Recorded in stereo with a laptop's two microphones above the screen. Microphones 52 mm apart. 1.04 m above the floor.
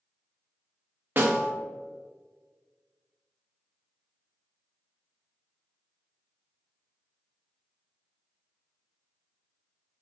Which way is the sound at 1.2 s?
40° right (ahead or behind).